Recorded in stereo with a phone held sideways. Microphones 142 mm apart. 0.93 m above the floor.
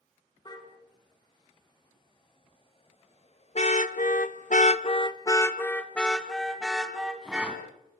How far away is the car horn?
About 4.5 m.